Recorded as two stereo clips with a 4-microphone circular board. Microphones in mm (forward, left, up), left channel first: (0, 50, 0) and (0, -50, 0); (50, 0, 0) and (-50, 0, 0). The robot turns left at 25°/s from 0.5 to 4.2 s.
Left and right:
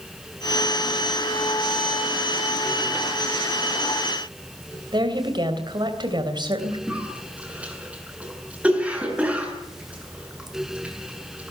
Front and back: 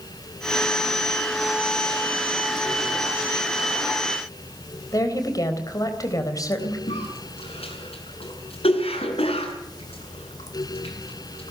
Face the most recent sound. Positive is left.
turn(degrees=-15)